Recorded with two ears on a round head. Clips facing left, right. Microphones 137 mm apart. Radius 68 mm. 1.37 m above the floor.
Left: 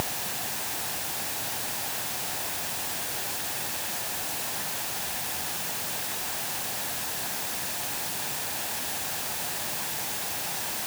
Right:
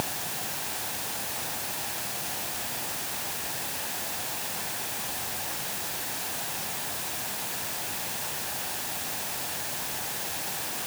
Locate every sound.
Only background noise.